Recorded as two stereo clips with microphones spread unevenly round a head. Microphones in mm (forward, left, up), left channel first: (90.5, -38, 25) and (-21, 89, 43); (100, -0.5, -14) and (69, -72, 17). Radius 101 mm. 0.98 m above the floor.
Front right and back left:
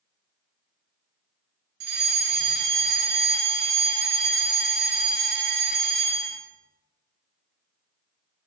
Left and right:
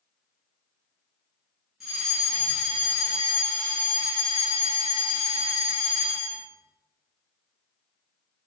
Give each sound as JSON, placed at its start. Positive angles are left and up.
{"t": 1.8, "sound": "a fire alarm", "azimuth_deg": 145, "distance_m": 2.5}